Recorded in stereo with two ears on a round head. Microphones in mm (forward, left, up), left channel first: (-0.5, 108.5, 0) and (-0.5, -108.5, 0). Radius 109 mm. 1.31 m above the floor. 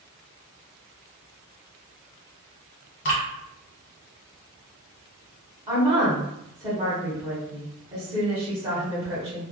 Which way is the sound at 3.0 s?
50° left (ahead or behind).